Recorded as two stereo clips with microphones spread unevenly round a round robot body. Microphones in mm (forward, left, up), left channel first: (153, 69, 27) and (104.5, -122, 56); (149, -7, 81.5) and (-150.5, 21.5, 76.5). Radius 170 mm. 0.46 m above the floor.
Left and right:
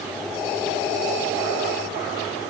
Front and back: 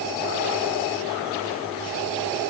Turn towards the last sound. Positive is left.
No sound to turn to.